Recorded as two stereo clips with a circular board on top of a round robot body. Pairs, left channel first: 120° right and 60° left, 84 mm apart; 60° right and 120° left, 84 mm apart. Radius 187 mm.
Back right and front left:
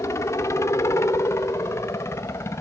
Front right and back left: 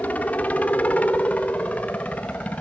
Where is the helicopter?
120° right; by 2.6 s 125° right.